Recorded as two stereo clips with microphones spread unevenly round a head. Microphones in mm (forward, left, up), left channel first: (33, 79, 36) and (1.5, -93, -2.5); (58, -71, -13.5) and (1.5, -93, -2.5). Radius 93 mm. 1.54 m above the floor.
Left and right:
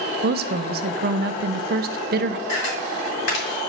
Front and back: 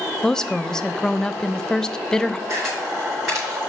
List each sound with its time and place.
0.2 s a woman speaking: 65° right, 0.6 m
2.5 s a camera shutter: 115° left, 4.5 m